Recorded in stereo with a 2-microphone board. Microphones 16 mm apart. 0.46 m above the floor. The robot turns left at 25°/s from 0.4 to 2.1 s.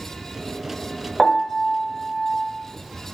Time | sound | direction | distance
1.2 | a piano | 15° left (ahead or behind) | 0.6 m